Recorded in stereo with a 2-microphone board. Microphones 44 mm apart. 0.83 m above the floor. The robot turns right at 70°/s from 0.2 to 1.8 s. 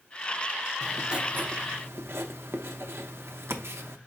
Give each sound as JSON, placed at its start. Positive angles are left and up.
{"t": 0.8, "sound": "writing", "azimuth_deg": -175, "distance_m": 0.6}